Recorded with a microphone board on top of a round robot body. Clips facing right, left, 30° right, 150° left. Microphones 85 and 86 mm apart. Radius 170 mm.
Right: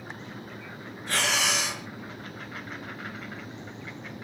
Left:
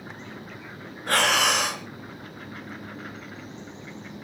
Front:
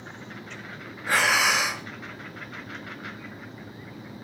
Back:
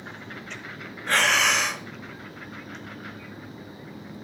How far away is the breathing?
About 3 m.